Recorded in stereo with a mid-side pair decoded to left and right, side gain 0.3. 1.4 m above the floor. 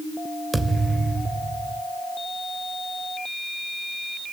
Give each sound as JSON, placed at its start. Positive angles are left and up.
{"t": 0.5, "sound": "a thud", "azimuth_deg": -35, "distance_m": 3.0}